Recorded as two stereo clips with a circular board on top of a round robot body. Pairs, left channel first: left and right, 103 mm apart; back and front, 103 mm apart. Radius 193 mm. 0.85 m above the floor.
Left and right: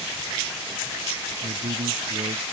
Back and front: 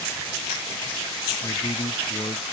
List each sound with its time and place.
1.4 s a man speaking: 125° right